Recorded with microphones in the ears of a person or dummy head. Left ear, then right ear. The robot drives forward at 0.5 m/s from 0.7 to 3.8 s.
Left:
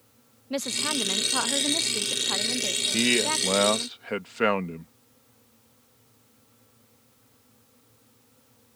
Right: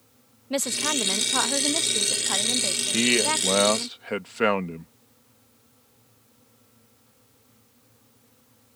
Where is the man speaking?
Centre (ahead or behind).